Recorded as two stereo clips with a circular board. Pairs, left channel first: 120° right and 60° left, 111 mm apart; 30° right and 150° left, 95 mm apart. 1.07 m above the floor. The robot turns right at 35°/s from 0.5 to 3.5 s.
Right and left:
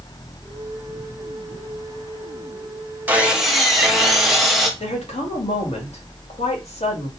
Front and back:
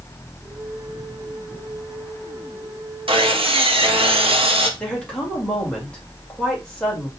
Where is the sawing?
135° left, 0.9 m; by 4.7 s 150° left, 0.9 m.